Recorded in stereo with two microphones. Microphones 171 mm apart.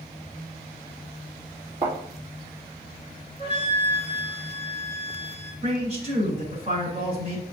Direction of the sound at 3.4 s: 40° right (ahead or behind).